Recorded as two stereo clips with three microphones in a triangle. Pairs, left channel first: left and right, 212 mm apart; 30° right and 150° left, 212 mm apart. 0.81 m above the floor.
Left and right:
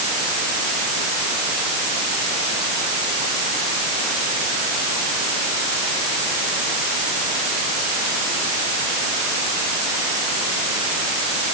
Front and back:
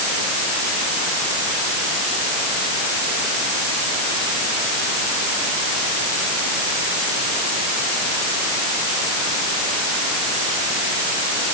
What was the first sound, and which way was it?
Only background noise.